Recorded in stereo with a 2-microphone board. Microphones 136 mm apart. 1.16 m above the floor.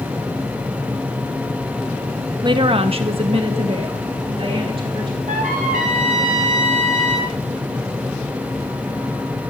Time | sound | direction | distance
2.4 | a woman speaking | 35° right (ahead or behind) | 0.7 m
5.3 | a trumpet | 75° right (ahead or behind) | 3.5 m